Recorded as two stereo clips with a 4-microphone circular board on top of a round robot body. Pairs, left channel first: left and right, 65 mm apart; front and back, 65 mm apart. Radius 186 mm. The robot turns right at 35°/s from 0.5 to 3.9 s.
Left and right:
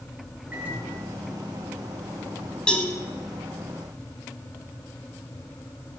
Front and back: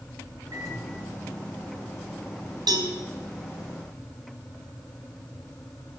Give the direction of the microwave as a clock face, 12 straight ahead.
5 o'clock.